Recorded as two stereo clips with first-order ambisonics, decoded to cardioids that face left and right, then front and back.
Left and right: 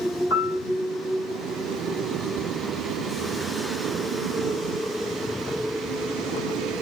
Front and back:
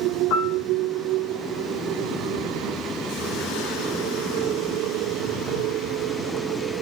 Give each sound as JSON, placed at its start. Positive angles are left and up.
{"t": 0.3, "sound": "a piano", "azimuth_deg": 35, "distance_m": 2.5}